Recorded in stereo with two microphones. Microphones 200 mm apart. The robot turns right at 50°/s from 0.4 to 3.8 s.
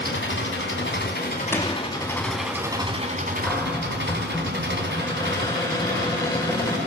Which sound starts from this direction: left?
An engine running, at 0.0 s.